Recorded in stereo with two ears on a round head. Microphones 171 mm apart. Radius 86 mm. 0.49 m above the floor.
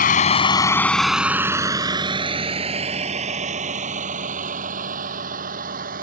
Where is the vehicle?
50° left (ahead or behind); by 6.0 s 45° right (ahead or behind).